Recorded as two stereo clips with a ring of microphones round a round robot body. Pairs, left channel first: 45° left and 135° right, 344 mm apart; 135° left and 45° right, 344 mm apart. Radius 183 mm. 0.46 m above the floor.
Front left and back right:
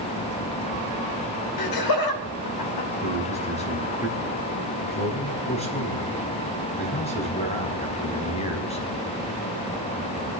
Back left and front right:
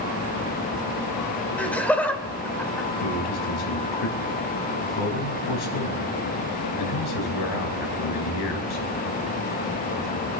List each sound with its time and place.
1.6 s laughter: 50° left, 2 m
3.0 s a man speaking: 120° left, 5 m